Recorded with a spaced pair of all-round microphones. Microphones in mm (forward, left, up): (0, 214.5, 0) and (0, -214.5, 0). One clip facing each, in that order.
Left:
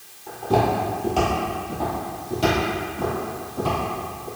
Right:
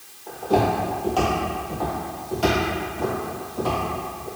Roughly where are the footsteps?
Left.